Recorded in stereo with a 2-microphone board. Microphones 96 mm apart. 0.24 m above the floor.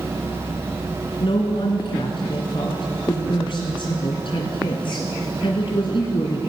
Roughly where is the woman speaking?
Left.